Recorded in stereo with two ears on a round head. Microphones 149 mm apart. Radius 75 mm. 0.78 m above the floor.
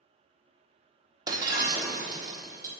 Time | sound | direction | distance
1.3 | breaking glass | 25° right (ahead or behind) | 1.2 m